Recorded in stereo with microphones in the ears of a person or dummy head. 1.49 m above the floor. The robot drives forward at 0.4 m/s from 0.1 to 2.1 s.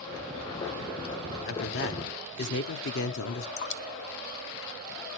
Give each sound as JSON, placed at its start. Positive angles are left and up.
{"t": 1.5, "sound": "a man speaking", "side_deg": 55, "distance_m": 1.0}
{"t": 3.6, "sound": "dripping", "side_deg": 50, "distance_m": 0.7}